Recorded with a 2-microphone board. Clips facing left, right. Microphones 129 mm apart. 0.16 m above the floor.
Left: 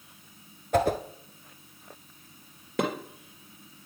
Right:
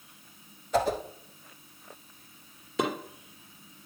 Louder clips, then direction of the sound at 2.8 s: Left 1 dB; 55° left (ahead or behind).